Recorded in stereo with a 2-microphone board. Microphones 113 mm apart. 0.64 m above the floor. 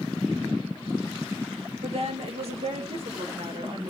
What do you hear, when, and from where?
1.8 s a woman speaking: 65° right (ahead or behind), 2.5 m; by 3.9 s 55° right (ahead or behind), 3 m